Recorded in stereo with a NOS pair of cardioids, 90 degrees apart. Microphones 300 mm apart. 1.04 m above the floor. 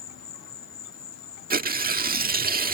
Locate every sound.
0.0 s an insect: 55° left
1.5 s tearing paper: 30° right